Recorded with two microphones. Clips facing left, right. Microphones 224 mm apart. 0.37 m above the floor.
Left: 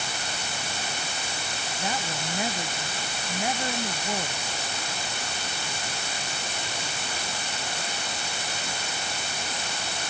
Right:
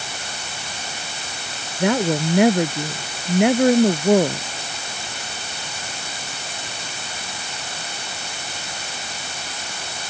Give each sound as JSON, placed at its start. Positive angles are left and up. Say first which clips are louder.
{"t": 1.8, "sound": "a woman speaking", "louder": "right 16 dB", "side_deg": -65}